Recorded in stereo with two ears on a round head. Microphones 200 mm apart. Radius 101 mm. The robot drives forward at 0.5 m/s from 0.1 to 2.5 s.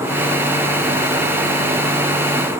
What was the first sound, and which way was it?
Only background noise.